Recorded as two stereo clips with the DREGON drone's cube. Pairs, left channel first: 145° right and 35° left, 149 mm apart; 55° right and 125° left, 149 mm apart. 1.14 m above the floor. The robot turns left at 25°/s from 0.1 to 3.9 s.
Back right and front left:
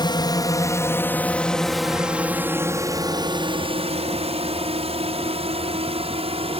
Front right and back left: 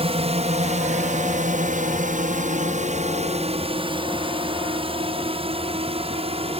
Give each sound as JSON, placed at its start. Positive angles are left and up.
{"t": 0.0, "sound": "a drone", "azimuth_deg": 160}